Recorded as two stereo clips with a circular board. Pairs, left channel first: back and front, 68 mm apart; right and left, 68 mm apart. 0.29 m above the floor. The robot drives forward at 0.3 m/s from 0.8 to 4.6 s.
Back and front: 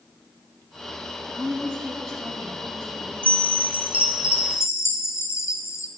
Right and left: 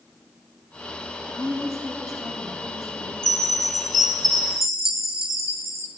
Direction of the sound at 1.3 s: 90° right.